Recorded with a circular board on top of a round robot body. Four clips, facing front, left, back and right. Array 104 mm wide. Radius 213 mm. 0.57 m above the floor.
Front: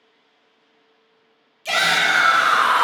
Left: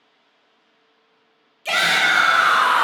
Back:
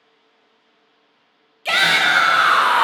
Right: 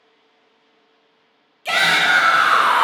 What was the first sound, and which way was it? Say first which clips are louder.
A shout: right 2 dB, back 2 dB; 175° right.